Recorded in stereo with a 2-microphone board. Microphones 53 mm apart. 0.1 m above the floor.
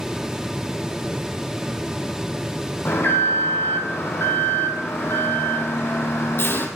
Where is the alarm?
45° left (ahead or behind), 2 m.